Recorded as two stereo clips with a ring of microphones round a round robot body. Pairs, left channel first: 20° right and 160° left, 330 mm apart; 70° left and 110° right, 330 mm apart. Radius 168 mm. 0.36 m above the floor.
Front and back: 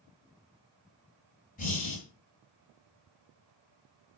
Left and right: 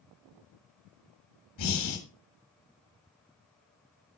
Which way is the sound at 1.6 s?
40° left.